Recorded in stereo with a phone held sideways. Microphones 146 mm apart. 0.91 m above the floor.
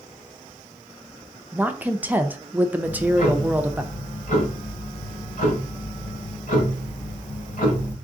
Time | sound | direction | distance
1.5 | a woman speaking | 10° right (ahead or behind) | 0.5 m
2.8 | ticking | 65° left (ahead or behind) | 2 m